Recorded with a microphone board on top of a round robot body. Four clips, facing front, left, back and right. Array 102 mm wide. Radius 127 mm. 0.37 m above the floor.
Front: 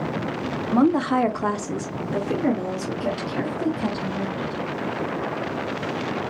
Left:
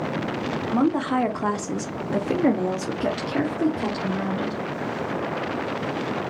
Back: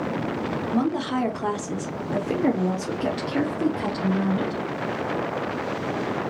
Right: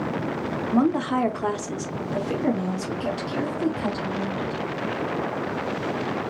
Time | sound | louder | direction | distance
0.7 | a woman speaking | even, front 7 dB | straight ahead | 1.4 m